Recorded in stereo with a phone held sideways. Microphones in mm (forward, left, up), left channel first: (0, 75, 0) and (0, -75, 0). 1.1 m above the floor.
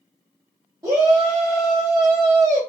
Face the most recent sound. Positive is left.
turn(degrees=-25)  # may be behind; listen again after turning